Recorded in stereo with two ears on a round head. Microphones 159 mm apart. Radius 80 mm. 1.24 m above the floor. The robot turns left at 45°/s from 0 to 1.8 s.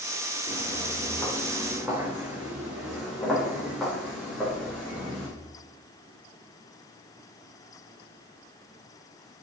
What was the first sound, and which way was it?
Footsteps, 40° left (ahead or behind).